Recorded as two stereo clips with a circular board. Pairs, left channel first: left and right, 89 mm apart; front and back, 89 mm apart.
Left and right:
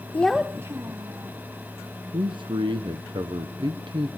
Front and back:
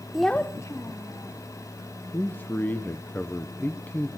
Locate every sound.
0.1 s a child speaking: 105° left, 0.6 m; by 1.4 s 45° right, 1.6 m
2.1 s a man speaking: 65° right, 1.0 m